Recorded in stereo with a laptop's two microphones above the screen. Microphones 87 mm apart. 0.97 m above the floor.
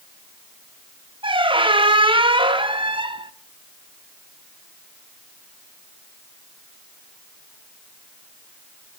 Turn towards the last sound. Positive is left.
turn(degrees=-70)  # may be behind; listen again after turning